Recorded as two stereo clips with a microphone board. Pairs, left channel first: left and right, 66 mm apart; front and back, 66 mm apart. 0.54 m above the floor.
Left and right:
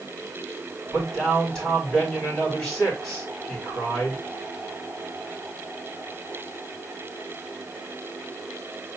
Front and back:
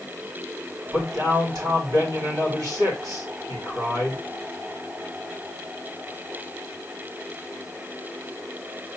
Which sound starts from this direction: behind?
A man speaking, at 0.9 s.